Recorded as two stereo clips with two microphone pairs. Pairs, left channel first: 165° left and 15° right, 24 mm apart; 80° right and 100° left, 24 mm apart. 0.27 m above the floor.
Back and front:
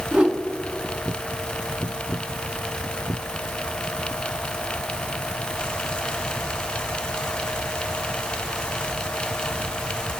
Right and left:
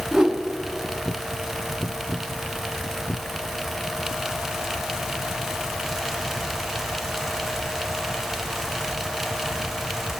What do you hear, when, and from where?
0.1 s a whoosh: 25° left, 1.1 m